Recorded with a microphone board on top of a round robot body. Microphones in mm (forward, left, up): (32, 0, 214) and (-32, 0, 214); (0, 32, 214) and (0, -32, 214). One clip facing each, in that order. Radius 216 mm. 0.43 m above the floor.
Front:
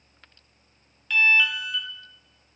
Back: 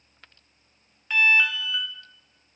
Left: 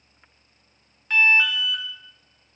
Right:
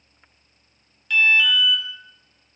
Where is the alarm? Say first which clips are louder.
Even, right 1 dB; 125° left, 1.5 m.